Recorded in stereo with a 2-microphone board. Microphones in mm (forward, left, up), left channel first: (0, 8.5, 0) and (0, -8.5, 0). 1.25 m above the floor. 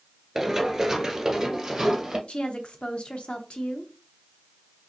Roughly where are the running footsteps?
Centre.